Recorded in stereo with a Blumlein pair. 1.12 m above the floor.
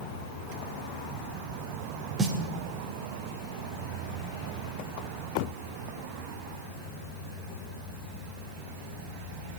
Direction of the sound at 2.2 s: 20° right.